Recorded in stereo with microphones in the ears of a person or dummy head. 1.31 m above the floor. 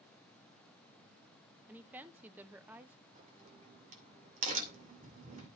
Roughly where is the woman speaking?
Centre.